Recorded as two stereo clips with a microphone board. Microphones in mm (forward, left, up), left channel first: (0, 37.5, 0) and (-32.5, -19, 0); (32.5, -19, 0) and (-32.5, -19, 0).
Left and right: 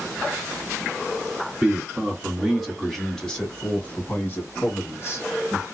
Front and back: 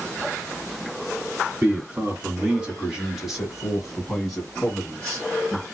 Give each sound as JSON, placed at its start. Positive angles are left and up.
{"t": 1.6, "sound": "a man speaking", "azimuth_deg": -160, "distance_m": 1.8}